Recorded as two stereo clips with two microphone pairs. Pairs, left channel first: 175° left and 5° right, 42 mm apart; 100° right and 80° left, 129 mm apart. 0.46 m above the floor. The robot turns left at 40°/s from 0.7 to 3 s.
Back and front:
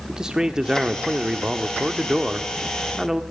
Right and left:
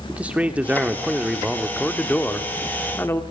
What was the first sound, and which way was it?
A man speaking, 25° left.